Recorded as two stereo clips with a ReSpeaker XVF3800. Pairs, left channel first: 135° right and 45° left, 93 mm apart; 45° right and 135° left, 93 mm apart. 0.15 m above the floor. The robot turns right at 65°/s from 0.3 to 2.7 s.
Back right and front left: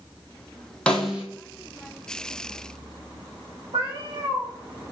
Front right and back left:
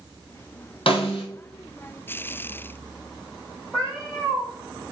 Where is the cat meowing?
50° left, 4.5 m.